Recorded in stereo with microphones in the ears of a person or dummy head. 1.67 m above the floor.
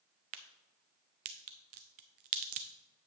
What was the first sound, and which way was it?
A crack, 35° right (ahead or behind).